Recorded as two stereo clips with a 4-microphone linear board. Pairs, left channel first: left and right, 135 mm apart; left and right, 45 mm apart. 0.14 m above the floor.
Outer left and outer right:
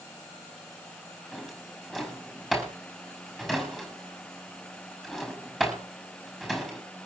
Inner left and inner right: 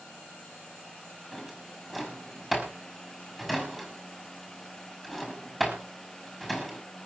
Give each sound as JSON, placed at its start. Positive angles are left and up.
{"t": 1.3, "sound": "a drawer", "side_deg": -5, "distance_m": 5.5}